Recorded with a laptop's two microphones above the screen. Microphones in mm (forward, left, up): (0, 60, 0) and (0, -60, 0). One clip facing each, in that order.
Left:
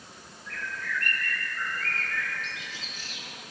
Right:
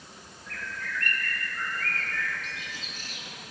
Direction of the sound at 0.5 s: 45° right (ahead or behind).